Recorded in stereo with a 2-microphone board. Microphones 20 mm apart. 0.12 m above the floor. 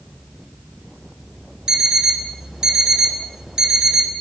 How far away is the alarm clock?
About 1.0 m.